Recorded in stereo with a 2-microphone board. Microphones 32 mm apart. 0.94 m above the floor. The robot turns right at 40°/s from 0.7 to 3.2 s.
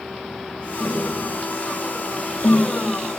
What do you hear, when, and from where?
0.8 s tapping: 10° left (ahead or behind), 3.5 m; by 2.7 s 85° left, 3.5 m